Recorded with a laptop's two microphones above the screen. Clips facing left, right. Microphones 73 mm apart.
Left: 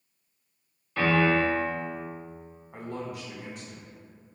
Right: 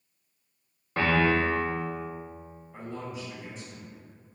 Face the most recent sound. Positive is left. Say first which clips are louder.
# left 2 dB
turn(degrees=65)  # may be behind; listen again after turning